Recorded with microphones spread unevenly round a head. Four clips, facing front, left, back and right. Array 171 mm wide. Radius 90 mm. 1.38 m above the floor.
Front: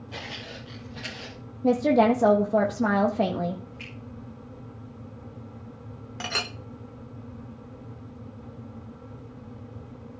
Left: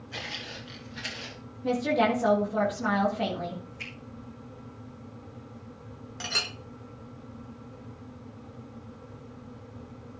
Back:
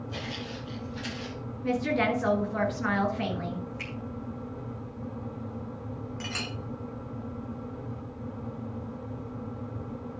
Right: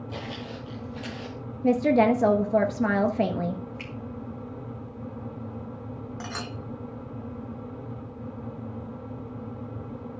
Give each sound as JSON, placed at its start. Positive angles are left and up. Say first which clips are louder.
{"t": 0.1, "sound": "footsteps", "louder": "right 2 dB, front 1 dB", "azimuth_deg": -80, "distance_m": 4.0}
{"t": 1.6, "sound": "a woman speaking", "louder": "right 5 dB, front 7 dB", "azimuth_deg": -50, "distance_m": 1.5}
{"t": 3.8, "sound": "a finger snap", "louder": "right 5 dB, back 4 dB", "azimuth_deg": -165, "distance_m": 5.0}
{"t": 6.2, "sound": "a clink", "louder": "even, front 8 dB", "azimuth_deg": 0, "distance_m": 1.3}